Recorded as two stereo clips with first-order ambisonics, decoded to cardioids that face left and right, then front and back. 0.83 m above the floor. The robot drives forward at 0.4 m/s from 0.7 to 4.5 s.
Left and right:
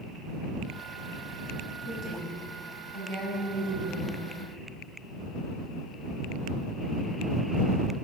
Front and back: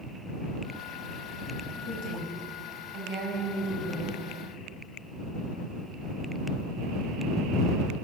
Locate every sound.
1.9 s a woman speaking: 145° left, 5.5 m; by 4.2 s 150° left, 6.5 m